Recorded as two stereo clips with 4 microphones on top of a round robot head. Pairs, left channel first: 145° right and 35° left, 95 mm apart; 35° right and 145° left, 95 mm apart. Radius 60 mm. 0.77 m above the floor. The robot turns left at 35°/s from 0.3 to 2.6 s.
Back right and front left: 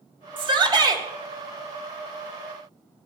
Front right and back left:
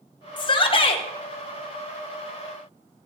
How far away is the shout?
About 2 m.